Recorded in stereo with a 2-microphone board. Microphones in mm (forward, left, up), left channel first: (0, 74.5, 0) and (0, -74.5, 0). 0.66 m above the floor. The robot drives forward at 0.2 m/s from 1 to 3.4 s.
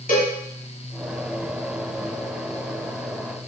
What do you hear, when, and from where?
0.1 s a cowbell: 75° left (ahead or behind), 1.2 m